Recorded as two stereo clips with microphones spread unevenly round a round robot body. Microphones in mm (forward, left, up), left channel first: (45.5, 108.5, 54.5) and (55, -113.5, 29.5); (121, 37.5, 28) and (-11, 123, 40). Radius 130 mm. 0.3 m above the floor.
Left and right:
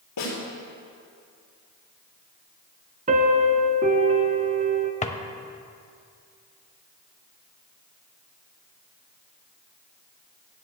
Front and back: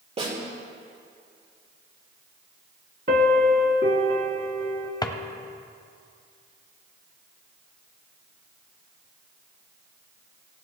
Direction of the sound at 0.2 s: 100° left.